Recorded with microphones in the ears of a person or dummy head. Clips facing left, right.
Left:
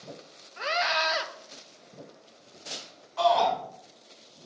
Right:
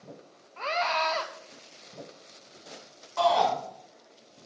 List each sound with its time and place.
0.6 s a scream: 10° left (ahead or behind), 1.0 m
3.2 s a shout: 65° right (ahead or behind), 5 m